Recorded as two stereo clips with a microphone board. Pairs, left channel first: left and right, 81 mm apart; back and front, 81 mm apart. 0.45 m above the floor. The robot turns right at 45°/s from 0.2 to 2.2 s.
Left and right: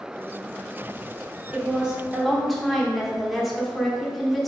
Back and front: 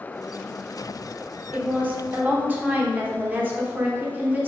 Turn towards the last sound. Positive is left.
turn(degrees=0)